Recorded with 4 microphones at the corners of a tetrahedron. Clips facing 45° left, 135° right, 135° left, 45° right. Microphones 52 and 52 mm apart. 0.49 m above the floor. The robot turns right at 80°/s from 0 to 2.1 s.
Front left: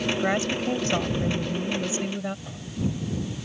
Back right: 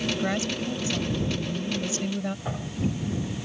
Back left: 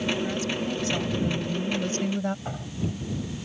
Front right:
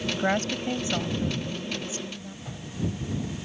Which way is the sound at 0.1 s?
35° right.